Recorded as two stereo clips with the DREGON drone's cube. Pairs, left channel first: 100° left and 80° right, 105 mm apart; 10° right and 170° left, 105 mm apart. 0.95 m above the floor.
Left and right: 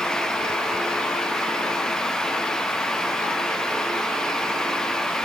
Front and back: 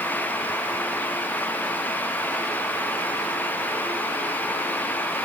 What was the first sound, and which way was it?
Only background noise.